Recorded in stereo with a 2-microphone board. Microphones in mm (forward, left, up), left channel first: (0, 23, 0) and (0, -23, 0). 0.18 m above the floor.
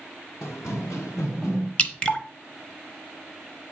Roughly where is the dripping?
Left.